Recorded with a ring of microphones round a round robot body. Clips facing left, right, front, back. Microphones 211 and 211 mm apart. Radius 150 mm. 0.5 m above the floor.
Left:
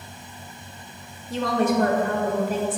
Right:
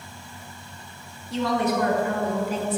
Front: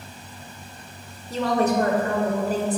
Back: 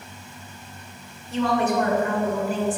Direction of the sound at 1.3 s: 50° left.